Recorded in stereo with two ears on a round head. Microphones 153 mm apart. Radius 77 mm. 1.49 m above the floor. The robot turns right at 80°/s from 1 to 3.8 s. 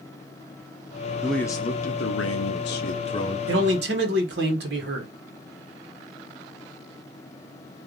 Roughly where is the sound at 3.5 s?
Right.